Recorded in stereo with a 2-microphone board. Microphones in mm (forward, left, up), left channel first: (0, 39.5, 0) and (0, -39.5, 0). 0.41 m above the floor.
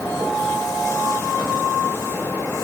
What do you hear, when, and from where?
Only background noise.